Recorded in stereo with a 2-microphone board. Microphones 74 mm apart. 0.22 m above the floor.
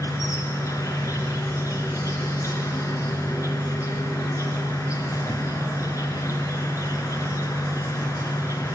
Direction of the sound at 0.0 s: 45° left (ahead or behind).